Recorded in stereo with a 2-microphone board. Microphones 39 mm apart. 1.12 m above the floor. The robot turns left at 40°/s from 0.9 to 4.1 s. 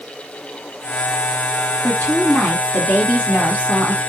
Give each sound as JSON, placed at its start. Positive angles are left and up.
{"t": 1.8, "sound": "a woman speaking", "azimuth_deg": 120, "distance_m": 1.4}